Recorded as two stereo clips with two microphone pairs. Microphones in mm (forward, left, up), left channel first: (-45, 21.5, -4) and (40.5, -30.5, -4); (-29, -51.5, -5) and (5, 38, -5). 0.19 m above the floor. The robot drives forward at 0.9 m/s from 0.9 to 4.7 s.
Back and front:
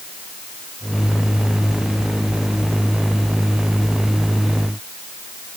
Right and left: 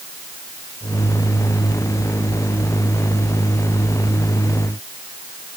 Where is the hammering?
No hammering in this recording.